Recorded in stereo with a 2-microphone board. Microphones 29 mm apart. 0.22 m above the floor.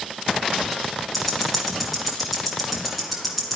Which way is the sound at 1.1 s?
Centre (ahead or behind).